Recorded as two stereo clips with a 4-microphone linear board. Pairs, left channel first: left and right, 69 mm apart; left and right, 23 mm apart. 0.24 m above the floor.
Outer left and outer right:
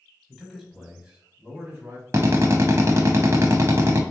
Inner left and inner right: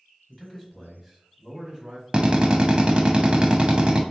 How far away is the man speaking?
About 1.2 m.